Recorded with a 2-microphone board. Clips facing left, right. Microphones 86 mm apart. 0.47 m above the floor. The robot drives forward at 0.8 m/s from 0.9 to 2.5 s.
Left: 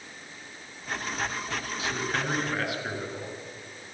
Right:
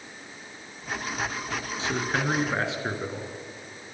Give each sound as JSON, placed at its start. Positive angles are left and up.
{"t": 1.8, "sound": "a man speaking", "side_deg": -30, "distance_m": 5.5}